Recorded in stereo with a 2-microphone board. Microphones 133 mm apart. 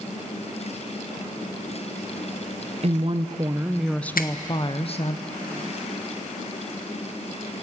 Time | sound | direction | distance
2.8 | a woman speaking | 50° right (ahead or behind) | 0.9 m
4.2 | a finger snap | 85° left | 1.2 m